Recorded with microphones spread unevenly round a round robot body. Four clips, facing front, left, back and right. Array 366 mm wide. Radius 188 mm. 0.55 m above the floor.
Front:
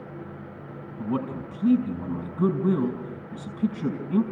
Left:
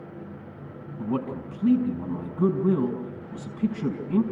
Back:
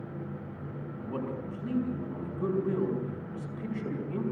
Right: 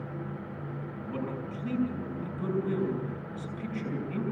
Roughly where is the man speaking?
Ahead left.